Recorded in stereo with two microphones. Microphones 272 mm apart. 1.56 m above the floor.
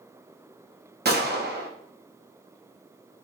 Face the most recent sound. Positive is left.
turn(degrees=-40)  # may be behind; listen again after turning